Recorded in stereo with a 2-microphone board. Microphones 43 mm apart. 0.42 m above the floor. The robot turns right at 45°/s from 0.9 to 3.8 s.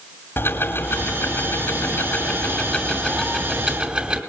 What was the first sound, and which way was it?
Ticking, 80° left.